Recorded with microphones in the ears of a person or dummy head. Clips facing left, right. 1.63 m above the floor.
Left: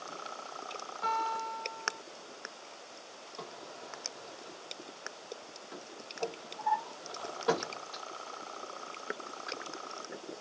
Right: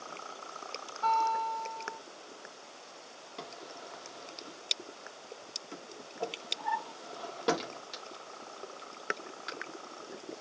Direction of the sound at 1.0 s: 20° left (ahead or behind).